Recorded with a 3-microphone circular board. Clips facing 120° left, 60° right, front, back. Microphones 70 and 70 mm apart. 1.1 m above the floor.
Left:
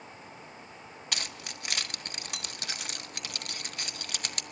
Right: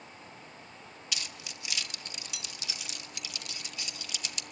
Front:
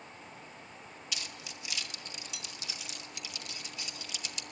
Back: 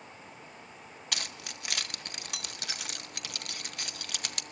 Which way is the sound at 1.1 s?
155° left.